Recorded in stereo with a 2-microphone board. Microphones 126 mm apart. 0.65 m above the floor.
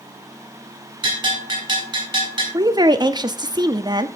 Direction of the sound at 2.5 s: 30° right (ahead or behind).